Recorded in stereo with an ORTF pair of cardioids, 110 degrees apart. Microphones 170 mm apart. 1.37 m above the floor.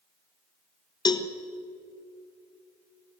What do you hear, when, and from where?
1.1 s a cowbell: 25° left, 1.2 m